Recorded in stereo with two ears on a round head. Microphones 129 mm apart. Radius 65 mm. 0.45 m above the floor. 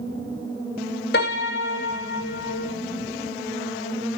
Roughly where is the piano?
Left.